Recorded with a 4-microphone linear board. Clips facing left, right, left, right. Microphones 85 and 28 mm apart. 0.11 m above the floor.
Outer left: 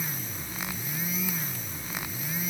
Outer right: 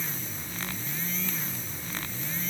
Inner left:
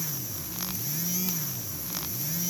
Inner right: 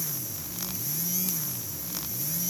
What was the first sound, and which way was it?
Only background noise.